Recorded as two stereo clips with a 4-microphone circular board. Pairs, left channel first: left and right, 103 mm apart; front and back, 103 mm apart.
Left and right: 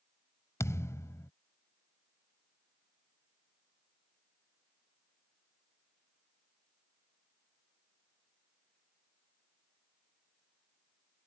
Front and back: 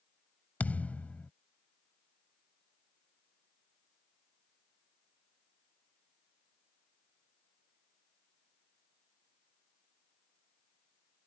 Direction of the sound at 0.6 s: 60° left.